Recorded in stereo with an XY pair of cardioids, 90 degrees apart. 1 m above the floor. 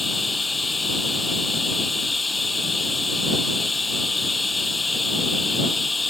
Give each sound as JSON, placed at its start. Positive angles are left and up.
{"t": 0.0, "sound": "running water", "azimuth_deg": 15}